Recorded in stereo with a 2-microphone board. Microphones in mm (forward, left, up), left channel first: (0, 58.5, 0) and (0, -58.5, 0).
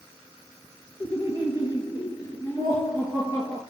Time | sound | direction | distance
1.0 | laughter | 35° left (ahead or behind) | 3 m